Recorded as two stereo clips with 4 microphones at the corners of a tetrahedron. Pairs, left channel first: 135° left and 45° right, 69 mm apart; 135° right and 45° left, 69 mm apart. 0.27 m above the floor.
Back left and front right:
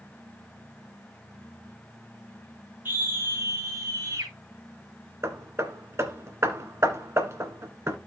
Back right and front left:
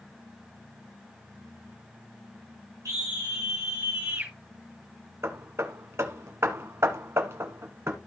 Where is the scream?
10° left, 3 m; by 4.3 s 5° right, 3 m.